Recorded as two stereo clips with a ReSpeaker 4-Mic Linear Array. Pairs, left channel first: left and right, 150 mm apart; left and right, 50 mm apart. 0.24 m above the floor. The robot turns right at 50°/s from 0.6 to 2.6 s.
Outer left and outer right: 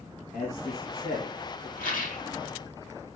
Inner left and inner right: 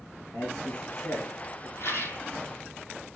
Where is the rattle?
75° left (ahead or behind), 4.5 m; by 2.2 s 55° left (ahead or behind), 4.5 m.